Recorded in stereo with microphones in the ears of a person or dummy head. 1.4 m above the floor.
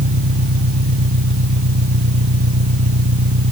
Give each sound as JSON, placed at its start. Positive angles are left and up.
{"t": 0.0, "sound": "an engine running", "side_deg": -75}